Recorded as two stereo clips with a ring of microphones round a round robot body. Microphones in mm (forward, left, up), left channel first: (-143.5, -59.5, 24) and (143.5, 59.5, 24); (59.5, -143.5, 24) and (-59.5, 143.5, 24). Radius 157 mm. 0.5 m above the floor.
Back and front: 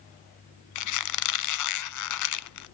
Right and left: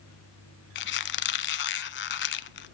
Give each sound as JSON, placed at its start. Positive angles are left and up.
{"t": 0.8, "sound": "a squeak", "azimuth_deg": -125, "distance_m": 0.8}